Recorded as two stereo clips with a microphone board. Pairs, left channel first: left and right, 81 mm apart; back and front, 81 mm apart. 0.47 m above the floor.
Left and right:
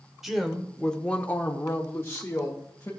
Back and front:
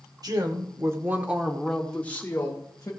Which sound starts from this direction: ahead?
A woman speaking, at 0.2 s.